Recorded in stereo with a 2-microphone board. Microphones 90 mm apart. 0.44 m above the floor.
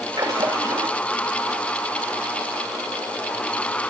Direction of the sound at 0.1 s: 60° right (ahead or behind).